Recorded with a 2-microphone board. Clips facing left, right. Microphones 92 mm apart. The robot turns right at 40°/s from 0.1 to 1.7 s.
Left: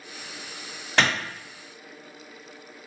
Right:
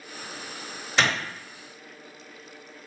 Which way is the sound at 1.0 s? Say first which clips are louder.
Left 1 dB; 55° left (ahead or behind).